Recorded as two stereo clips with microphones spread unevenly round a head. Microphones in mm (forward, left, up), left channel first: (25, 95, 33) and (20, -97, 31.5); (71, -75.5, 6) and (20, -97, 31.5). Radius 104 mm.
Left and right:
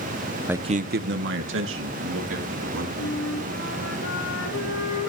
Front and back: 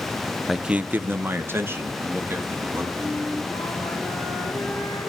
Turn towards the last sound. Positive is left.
turn(degrees=75)